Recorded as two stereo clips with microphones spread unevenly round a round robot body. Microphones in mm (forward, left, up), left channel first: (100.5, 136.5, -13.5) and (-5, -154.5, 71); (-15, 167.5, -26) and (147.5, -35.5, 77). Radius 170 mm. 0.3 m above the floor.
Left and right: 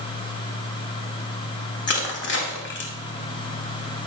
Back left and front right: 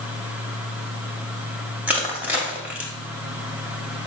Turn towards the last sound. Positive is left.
turn(degrees=50)